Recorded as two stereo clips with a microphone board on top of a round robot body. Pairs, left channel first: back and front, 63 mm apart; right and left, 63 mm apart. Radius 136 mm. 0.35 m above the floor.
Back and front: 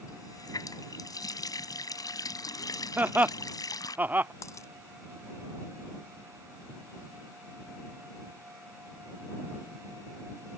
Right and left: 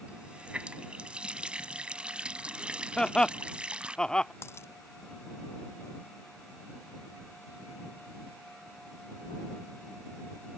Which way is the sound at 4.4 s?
140° right.